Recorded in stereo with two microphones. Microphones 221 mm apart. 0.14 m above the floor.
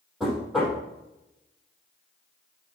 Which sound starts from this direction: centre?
Knocking, at 0.2 s.